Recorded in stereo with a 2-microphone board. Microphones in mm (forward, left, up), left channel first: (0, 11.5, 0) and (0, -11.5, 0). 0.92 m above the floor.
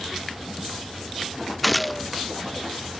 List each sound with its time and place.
1.6 s a gunshot: centre (ahead or behind)